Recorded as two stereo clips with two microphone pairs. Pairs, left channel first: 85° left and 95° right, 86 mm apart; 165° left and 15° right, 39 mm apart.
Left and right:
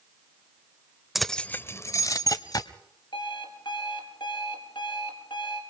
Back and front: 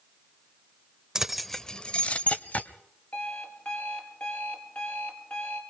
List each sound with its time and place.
1.1 s keys jangling: 5° right, 0.5 m; by 2.7 s 120° left, 1.1 m
3.1 s an alarm clock: 110° left, 4 m